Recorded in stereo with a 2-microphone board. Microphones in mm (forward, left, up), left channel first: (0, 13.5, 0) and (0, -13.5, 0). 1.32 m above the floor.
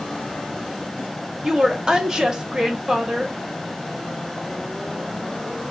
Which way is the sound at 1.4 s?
20° right (ahead or behind).